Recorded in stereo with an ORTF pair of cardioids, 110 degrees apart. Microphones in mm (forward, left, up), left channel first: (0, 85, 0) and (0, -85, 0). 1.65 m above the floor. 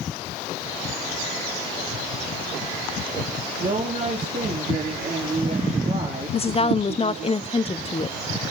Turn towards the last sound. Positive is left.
turn(degrees=35)